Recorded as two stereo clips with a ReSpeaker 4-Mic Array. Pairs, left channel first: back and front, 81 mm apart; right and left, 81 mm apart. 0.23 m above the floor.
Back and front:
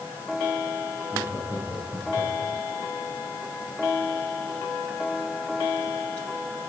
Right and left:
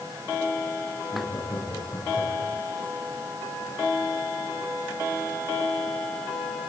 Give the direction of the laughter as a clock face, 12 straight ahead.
4 o'clock.